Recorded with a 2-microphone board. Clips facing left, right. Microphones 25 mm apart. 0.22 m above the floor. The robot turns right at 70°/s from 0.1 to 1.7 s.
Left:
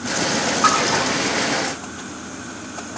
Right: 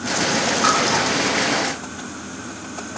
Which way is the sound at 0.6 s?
10° left (ahead or behind).